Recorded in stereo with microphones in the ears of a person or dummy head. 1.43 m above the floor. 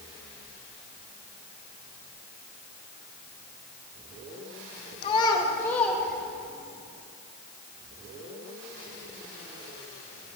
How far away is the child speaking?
About 1.2 m.